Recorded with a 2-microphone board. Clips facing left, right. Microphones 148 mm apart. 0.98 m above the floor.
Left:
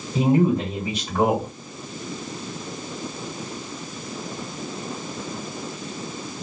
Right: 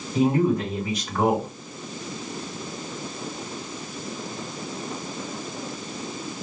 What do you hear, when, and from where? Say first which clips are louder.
0.1 s a man speaking: left 2 dB; 30° left (ahead or behind), 1.4 m